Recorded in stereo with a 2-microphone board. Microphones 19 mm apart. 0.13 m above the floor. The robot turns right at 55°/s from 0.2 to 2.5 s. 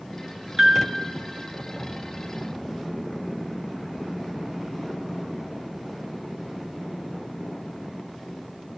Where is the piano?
20° right (ahead or behind), 1.1 m; by 0.8 s 30° right (ahead or behind), 1.1 m.